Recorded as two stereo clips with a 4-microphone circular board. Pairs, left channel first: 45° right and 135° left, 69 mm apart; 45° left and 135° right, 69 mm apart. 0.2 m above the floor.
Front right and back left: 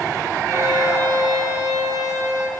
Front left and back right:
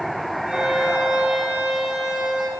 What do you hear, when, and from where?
0.5 s a violin: 150° left, 3 m